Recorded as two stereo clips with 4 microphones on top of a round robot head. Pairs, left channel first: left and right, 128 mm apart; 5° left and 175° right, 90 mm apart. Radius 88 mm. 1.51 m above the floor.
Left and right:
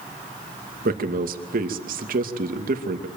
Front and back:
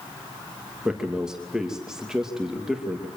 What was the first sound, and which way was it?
A man speaking, 90° right.